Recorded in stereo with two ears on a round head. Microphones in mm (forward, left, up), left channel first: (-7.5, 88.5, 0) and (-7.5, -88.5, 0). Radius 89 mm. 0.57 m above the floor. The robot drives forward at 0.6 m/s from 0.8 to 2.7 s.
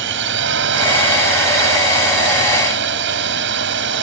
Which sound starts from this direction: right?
A drone, at 0.0 s.